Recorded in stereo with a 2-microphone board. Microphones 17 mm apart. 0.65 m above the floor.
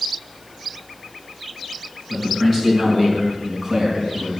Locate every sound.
2.1 s a man speaking: 15° left (ahead or behind), 6.5 m; by 4.4 s 10° right (ahead or behind), 5 m